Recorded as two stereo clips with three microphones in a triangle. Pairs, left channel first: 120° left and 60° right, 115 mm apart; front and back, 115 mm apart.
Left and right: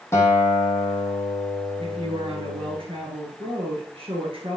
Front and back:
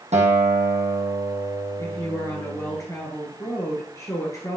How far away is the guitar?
About 1.5 m.